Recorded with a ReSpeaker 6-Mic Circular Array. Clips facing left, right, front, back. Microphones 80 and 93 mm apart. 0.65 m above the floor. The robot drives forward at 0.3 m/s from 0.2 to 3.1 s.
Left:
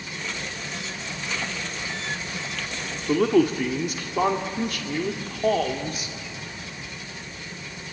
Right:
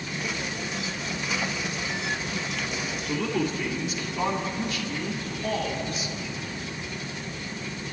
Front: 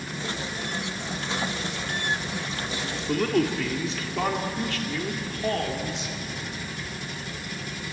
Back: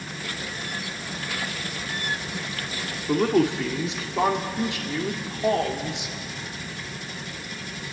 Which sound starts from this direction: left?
A man speaking, at 3.1 s.